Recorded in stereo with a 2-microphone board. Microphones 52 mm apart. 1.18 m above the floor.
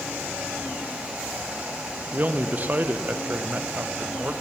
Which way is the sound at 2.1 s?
35° right (ahead or behind).